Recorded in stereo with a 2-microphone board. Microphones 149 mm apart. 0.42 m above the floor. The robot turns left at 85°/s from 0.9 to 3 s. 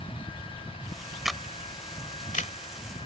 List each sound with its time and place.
1.2 s a camera shutter: 5° right (ahead or behind); by 2.5 s 55° left (ahead or behind)